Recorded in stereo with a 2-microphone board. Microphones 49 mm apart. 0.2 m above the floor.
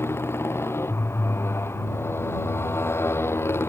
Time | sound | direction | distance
0.0 | a motorcycle | 60° left (ahead or behind) | ?